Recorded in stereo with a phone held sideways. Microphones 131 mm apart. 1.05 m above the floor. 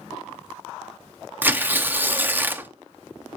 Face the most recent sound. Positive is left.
turn(degrees=-15)  # may be behind; listen again after turning